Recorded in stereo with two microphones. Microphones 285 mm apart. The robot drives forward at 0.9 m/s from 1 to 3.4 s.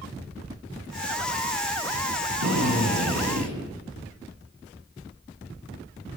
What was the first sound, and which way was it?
A drill, 75° right (ahead or behind).